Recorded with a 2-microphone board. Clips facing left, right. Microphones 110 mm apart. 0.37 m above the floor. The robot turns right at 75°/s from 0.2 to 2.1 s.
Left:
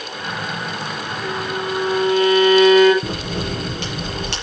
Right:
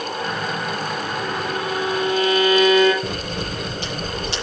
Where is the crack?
70° left (ahead or behind), 8.5 m.